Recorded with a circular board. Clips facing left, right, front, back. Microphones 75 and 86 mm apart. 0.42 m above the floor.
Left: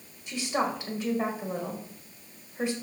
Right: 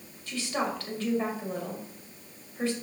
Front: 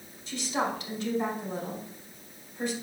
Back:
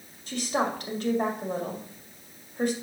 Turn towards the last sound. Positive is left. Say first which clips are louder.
# left 2 dB, back 3 dB
turn(degrees=160)